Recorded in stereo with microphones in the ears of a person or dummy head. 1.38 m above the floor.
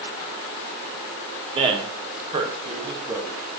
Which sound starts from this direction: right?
A man speaking, at 1.6 s.